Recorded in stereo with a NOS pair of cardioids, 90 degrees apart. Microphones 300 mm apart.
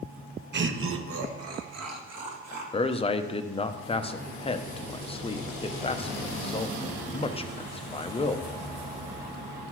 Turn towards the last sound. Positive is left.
turn(degrees=20)